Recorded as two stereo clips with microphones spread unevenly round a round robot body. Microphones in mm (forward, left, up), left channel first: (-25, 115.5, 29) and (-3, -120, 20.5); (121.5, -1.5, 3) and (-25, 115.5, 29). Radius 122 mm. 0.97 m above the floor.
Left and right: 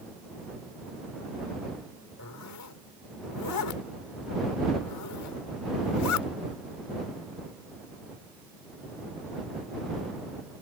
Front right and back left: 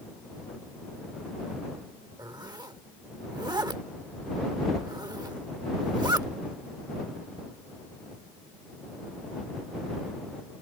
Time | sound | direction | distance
2.2 | a zipper | 75° left | ?